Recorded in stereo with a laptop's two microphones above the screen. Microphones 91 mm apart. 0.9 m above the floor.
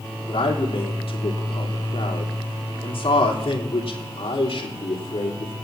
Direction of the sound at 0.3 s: 70° left (ahead or behind).